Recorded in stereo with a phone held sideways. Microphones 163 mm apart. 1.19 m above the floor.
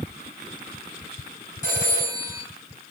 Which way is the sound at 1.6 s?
50° left (ahead or behind).